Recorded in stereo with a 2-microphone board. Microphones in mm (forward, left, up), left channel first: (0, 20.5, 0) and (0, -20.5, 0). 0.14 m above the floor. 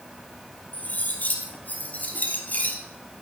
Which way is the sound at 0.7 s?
40° left (ahead or behind).